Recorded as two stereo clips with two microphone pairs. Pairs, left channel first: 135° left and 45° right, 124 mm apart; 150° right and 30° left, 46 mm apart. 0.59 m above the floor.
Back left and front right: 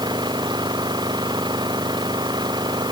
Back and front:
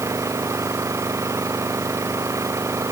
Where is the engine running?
10° left.